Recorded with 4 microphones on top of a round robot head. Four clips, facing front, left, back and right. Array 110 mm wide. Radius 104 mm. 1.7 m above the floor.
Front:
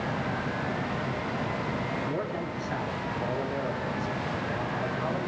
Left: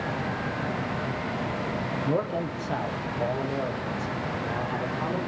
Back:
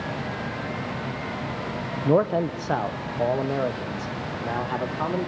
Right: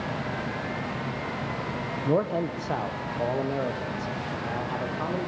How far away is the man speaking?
About 1.4 m.